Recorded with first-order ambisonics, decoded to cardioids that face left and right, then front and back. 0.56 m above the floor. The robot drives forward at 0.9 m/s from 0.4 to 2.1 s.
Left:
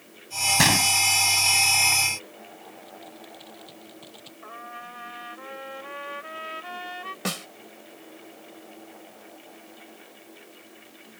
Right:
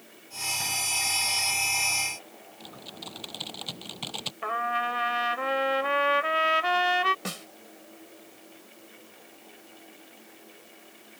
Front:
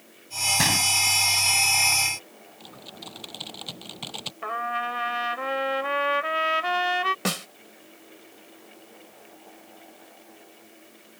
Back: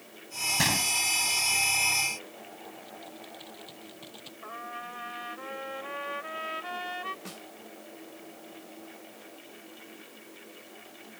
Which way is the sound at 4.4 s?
45° right.